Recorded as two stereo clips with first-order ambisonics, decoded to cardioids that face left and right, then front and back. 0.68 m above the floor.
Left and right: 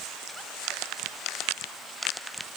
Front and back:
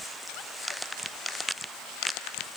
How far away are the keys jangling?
No keys jangling in this recording.